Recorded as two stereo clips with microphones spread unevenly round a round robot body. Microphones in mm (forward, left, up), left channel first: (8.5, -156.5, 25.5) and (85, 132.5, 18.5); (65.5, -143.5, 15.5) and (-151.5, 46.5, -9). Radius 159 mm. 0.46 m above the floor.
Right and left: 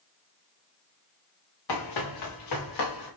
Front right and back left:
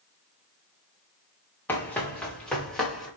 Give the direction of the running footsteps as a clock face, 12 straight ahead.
4 o'clock.